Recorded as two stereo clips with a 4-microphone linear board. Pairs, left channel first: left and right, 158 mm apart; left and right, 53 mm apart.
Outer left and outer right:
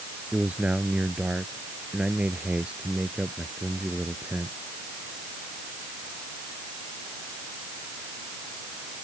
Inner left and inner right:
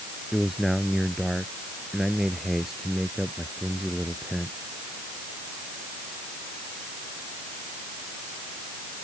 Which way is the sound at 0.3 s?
5° right (ahead or behind).